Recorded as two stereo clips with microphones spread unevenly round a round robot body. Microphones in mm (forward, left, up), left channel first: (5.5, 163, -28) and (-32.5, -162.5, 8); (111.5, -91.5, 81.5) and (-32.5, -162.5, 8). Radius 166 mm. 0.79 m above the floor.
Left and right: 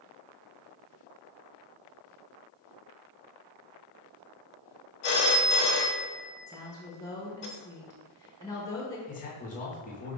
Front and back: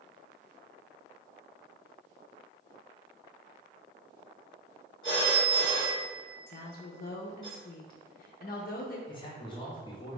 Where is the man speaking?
110° left, 1.0 m.